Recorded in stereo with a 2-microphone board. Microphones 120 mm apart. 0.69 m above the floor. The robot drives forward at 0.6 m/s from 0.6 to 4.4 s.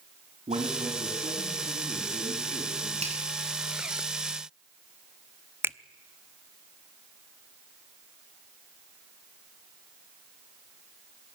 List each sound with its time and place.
0.5 s a man speaking: 65° right (ahead or behind), 7 m; by 2.9 s 55° right (ahead or behind), 7.5 m
3.0 s a finger snap: 60° right (ahead or behind), 6 m
5.6 s a finger snap: 20° right (ahead or behind), 0.5 m